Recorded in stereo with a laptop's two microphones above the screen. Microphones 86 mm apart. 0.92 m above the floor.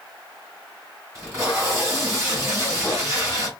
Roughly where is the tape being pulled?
Right.